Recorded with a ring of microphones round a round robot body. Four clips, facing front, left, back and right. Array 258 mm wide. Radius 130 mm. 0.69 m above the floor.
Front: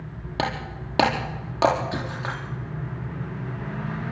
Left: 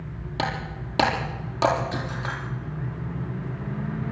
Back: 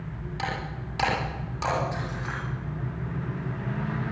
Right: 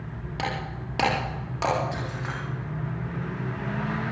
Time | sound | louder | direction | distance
0.4 | breaking glass | left 2 dB, front 5 dB | 10° left | 6.5 m